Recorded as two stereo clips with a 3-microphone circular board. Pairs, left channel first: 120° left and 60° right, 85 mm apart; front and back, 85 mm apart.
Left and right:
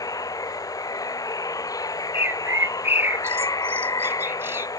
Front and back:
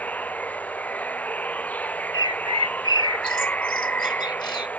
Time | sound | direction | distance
0.0 | running water | 75° left | ?
2.1 | a bird | straight ahead | ?